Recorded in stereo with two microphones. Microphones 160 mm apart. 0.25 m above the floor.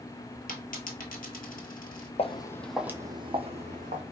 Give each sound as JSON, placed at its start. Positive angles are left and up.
{"t": 0.5, "sound": "a dropped coin", "side_deg": 55, "distance_m": 1.0}
{"t": 2.2, "sound": "footsteps", "side_deg": 40, "distance_m": 0.5}